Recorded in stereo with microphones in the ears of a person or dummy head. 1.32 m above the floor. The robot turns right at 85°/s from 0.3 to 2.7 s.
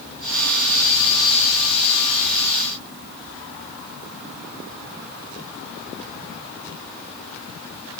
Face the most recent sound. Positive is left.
No sound to turn to.